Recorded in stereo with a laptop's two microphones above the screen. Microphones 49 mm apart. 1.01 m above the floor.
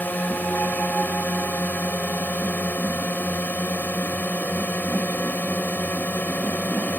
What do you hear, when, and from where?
0.0 s a drone: 35° left (ahead or behind)